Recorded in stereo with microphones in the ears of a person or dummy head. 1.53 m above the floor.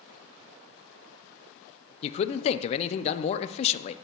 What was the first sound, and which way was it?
A man speaking, 40° left (ahead or behind).